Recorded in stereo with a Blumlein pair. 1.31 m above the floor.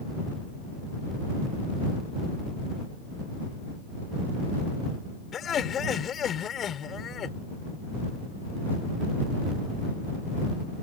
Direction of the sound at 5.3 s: 25° left.